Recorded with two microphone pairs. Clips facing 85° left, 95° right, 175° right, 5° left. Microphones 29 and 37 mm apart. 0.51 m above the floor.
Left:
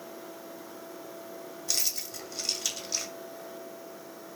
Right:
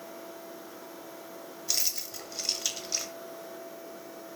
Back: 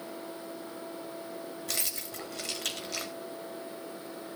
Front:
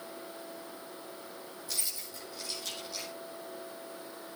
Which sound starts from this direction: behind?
Keys jangling, at 1.7 s.